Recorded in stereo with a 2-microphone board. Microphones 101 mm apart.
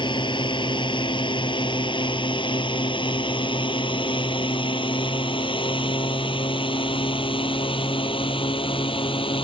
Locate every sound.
0.0 s a drone: 55° left (ahead or behind); by 9.5 s 65° left (ahead or behind)